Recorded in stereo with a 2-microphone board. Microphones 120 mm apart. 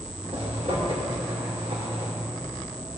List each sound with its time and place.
0.3 s a zipper: 60° right (ahead or behind), 2.5 m